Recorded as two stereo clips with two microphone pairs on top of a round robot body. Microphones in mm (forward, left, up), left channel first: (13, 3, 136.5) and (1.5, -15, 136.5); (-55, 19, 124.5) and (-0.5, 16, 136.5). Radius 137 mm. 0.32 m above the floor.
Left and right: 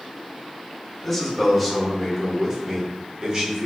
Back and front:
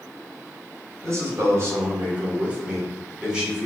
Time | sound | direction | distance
1.0 | a man speaking | 30° right | 1.9 m